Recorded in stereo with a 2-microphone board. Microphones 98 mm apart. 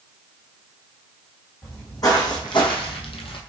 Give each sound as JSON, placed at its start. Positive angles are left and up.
{"t": 1.6, "sound": "footsteps", "side_deg": 35, "distance_m": 1.8}